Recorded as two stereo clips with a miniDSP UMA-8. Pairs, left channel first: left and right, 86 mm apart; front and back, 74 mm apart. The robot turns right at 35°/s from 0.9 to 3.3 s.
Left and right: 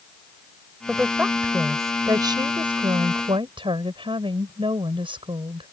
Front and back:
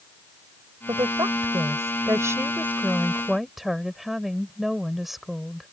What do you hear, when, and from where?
0.9 s a woman speaking: 175° right; by 5.7 s 90° right